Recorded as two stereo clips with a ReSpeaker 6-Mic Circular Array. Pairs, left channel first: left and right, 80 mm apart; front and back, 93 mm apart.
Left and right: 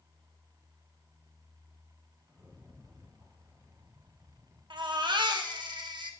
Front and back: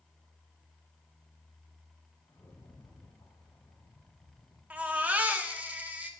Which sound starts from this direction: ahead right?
A rattle, at 2.3 s.